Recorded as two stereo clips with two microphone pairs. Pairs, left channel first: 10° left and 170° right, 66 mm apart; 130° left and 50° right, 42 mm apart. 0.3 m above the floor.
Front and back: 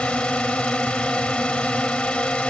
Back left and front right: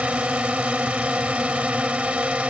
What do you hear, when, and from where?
0.0 s a drone: 50° right